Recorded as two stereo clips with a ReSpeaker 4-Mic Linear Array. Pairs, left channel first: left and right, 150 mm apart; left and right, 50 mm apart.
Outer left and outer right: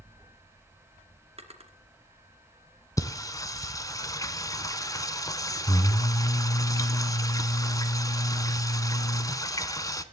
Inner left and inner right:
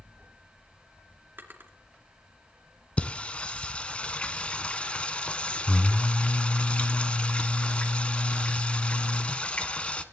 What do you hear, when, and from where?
1.4 s a drawer: 45° right (ahead or behind), 2.5 m
3.0 s singing: 25° left (ahead or behind), 1.0 m